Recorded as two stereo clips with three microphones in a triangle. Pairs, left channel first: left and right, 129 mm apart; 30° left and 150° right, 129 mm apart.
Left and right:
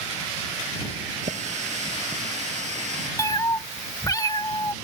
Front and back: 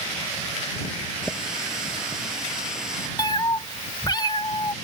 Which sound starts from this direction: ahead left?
A cat meowing, at 3.2 s.